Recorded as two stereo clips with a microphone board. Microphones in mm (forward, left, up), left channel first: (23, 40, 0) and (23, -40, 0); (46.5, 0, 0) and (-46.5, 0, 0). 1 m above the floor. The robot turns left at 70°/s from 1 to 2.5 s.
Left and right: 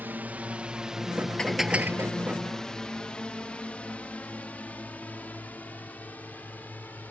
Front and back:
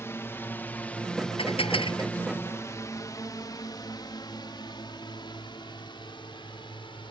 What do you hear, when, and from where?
0.0 s a drone: 40° right; by 7.1 s 25° left
1.4 s dishes clattering: 10° left; by 2.1 s 40° right